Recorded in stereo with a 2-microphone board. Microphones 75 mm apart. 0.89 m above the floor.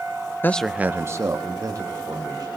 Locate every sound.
0.4 s a man speaking: 30° left (ahead or behind), 0.5 m; by 2.5 s 55° right (ahead or behind), 2.5 m